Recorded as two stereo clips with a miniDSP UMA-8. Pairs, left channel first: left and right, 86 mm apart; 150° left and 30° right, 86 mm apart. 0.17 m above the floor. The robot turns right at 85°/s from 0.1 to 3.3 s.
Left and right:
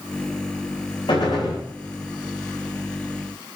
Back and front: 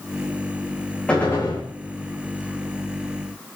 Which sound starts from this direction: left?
A gunshot, at 1.1 s.